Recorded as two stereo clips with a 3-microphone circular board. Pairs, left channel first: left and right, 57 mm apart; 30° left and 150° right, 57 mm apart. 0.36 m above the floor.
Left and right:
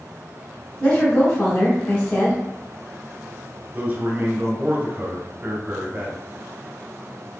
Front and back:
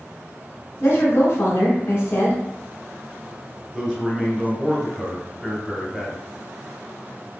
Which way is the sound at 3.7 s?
80° right.